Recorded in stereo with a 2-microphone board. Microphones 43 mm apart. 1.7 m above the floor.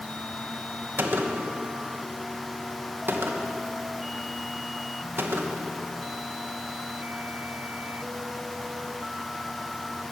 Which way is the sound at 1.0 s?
55° right (ahead or behind).